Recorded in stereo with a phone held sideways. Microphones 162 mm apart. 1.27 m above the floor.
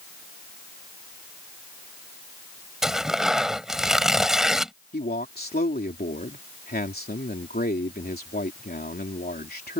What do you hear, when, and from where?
2.8 s tearing paper: 5° right (ahead or behind)
4.9 s a man speaking: 80° left